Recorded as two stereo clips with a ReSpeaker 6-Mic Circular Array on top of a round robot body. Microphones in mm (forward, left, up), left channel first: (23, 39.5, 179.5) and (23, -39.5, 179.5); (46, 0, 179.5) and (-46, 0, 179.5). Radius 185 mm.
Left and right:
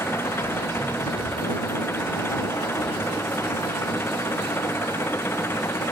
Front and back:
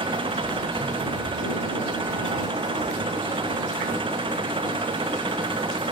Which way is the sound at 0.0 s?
150° left.